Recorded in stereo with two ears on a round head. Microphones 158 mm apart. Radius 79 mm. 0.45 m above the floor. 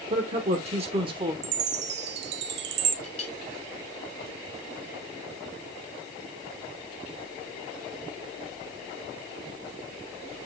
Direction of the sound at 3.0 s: 40° left (ahead or behind).